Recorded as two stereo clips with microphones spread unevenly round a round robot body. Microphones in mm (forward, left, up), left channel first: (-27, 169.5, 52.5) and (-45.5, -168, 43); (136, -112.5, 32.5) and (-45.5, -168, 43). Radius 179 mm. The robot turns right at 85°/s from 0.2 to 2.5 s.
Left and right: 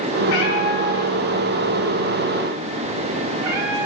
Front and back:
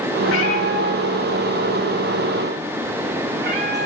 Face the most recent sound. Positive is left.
turn(degrees=-135)